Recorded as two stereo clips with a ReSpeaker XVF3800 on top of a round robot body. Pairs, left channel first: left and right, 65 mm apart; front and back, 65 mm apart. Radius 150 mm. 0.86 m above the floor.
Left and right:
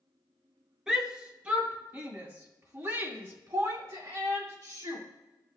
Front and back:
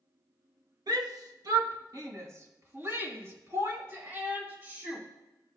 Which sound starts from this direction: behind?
A shout, at 0.9 s.